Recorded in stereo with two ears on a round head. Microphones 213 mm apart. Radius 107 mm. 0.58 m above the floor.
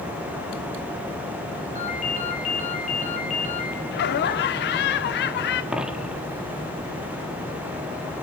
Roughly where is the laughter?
Left.